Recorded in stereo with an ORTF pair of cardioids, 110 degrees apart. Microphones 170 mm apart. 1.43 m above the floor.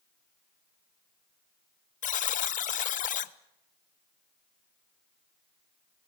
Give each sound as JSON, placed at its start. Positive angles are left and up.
{"t": 2.0, "sound": "a buzzer", "azimuth_deg": 45, "distance_m": 1.0}